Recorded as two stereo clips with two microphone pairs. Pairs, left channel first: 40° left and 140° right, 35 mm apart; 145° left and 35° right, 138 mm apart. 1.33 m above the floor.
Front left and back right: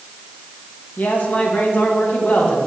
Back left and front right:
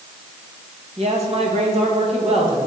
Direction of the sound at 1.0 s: 5° left.